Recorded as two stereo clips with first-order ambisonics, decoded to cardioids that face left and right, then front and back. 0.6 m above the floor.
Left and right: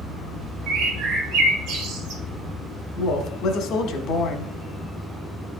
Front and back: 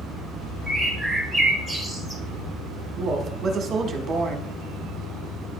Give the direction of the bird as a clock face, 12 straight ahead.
3 o'clock.